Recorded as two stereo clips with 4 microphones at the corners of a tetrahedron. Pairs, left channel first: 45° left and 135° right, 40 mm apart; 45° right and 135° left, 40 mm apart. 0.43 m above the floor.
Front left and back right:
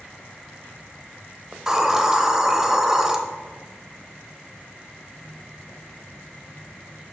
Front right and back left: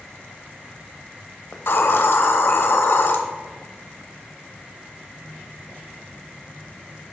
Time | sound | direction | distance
1.5 | a hiss | 55° right | 1.0 m